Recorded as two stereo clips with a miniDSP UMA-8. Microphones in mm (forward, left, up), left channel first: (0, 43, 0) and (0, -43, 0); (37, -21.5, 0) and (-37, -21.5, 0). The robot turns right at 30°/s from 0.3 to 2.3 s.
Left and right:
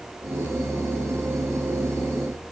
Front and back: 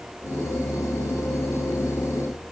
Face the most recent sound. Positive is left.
No sound to turn to.